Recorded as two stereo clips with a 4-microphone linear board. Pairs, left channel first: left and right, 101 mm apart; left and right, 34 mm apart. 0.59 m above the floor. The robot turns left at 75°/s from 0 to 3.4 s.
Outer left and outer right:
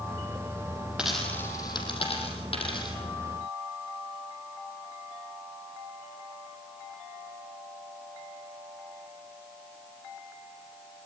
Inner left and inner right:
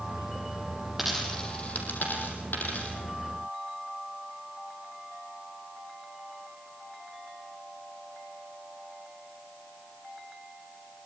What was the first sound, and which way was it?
A dropped coin, 10° right (ahead or behind).